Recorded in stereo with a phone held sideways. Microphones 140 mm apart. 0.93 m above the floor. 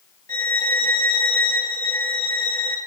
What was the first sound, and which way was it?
A violin, 75° right (ahead or behind).